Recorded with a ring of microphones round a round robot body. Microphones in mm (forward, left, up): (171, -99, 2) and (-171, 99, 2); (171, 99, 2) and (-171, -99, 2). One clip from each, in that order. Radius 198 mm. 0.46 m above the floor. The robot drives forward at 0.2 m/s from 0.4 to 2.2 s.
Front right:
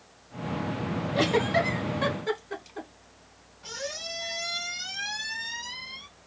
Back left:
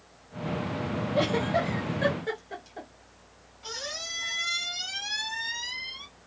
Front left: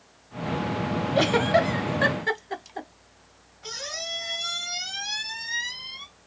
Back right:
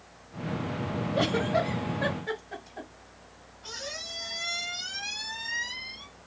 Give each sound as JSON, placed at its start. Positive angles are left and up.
{"t": 1.1, "sound": "a giggle", "azimuth_deg": 45, "distance_m": 0.9}
{"t": 3.6, "sound": "a squeak", "azimuth_deg": 95, "distance_m": 1.6}